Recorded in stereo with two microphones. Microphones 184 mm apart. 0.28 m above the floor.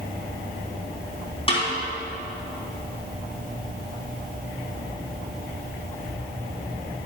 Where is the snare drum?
30° left (ahead or behind), 3 m.